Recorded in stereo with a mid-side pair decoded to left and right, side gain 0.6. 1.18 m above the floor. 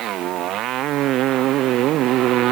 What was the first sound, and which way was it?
A motorcycle, 60° right.